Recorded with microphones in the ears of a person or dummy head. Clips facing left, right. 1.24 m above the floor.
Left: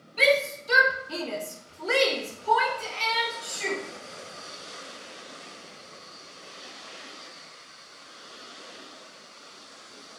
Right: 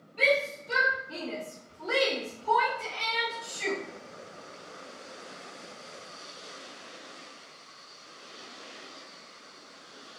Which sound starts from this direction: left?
A shout, at 0.2 s.